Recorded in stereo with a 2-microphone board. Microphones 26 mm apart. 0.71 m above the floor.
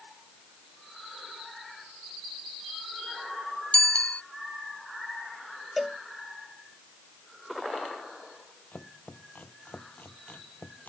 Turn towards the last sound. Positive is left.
turn(degrees=80)